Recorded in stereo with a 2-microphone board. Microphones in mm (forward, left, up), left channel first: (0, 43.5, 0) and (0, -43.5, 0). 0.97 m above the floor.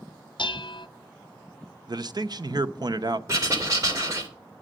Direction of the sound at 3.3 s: 35° right (ahead or behind).